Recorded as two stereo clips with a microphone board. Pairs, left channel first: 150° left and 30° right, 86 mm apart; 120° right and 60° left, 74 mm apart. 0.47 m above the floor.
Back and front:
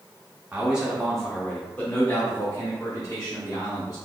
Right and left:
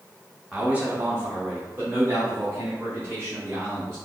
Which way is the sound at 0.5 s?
20° left.